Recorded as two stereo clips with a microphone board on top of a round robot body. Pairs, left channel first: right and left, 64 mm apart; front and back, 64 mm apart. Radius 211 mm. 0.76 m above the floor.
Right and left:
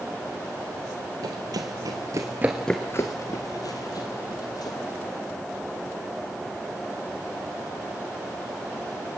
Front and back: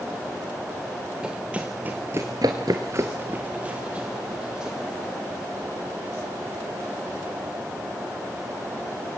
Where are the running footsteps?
105° left, 1.6 m; by 4.8 s 105° right, 2.5 m.